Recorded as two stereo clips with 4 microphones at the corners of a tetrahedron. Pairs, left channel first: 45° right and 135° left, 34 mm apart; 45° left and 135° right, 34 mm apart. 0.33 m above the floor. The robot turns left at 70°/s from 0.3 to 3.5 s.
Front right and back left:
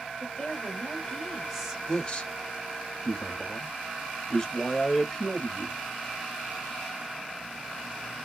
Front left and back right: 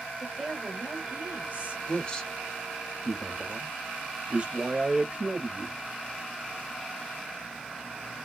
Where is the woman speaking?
55° right, 1.8 m; by 1.8 s 155° right, 1.8 m.